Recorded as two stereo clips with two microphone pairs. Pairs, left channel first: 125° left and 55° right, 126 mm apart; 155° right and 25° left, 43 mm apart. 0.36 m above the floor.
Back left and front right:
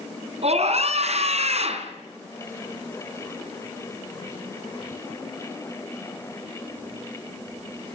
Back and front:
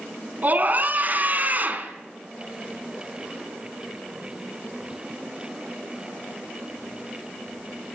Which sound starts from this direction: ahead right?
A scream, at 0.4 s.